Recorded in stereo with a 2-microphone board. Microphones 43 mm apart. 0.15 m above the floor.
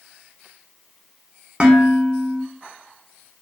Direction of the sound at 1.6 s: 20° right (ahead or behind).